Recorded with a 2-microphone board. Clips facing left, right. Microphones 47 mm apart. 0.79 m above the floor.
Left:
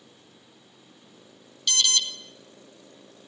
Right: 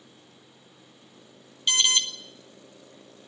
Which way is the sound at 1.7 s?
30° right (ahead or behind).